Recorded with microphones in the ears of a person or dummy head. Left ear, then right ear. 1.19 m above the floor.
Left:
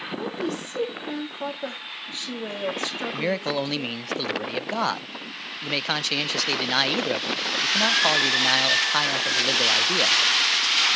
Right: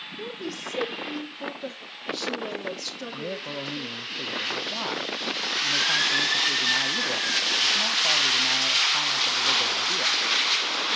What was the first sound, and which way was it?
A woman speaking, 40° left (ahead or behind).